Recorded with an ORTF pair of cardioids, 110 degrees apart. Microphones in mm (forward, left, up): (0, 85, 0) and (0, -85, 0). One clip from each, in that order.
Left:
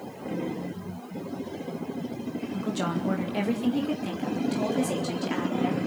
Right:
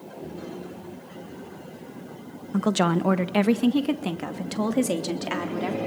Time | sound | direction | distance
2.5 | a woman speaking | 60° right | 1.2 m